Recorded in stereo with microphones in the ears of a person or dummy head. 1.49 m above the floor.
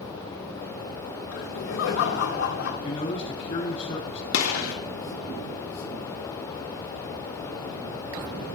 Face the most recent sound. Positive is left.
turn(degrees=80)